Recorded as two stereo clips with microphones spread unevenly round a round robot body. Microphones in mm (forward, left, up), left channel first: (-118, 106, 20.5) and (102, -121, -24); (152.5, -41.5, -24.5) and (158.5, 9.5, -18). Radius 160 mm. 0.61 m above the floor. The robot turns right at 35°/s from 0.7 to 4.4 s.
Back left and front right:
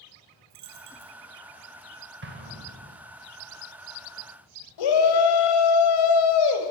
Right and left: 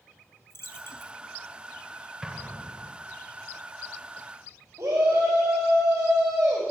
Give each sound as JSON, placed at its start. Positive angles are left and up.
{"t": 0.5, "sound": "a dropped coin", "azimuth_deg": -60, "distance_m": 3.0}
{"t": 2.2, "sound": "an explosion", "azimuth_deg": 5, "distance_m": 3.0}
{"t": 4.8, "sound": "a shout", "azimuth_deg": 145, "distance_m": 3.5}